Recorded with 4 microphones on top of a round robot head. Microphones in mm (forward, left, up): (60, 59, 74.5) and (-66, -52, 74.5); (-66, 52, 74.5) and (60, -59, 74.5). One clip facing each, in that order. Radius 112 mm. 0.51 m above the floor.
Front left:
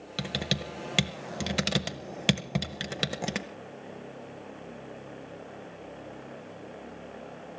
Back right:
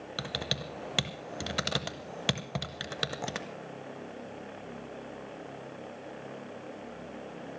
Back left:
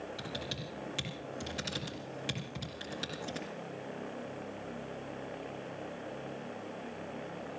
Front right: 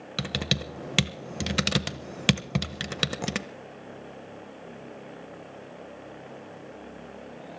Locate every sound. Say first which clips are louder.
0.2 s typing on a keyboard: front left 5 dB, front right 8 dB; 30° right, 0.8 m